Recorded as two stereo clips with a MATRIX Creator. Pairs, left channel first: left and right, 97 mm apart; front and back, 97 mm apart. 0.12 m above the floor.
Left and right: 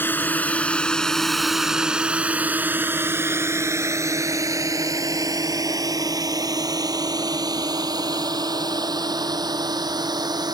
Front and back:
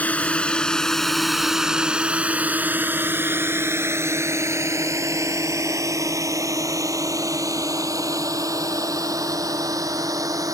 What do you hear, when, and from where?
0.0 s a drone: 55° left; by 10.5 s 130° right